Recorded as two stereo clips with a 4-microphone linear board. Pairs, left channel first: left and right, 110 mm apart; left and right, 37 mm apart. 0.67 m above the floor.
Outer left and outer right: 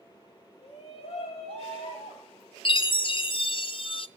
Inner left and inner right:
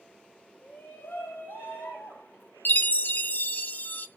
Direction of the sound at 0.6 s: 65° left (ahead or behind).